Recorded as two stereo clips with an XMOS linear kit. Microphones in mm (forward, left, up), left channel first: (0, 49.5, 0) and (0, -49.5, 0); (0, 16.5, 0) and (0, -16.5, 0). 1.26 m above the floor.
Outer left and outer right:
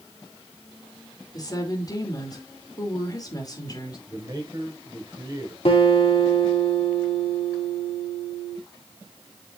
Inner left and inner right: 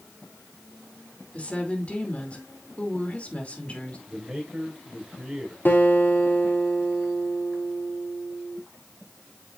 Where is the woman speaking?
40° left (ahead or behind), 2.5 m.